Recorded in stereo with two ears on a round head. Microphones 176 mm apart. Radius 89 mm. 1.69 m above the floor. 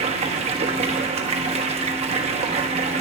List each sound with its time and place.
0.0 s running water: 35° right (ahead or behind), 1.1 m